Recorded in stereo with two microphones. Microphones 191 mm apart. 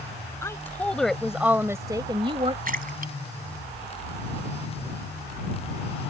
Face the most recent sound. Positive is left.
turn(degrees=-50)  # may be behind; listen again after turning